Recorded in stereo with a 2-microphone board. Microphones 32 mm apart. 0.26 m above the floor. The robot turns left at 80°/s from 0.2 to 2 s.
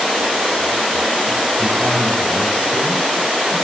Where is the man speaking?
175° right, 3.5 m; by 3.5 s 150° left, 3.5 m.